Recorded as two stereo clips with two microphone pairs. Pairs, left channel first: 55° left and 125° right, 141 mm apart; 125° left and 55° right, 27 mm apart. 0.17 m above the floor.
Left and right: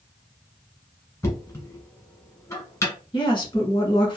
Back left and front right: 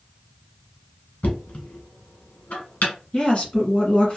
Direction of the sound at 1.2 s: 120° left.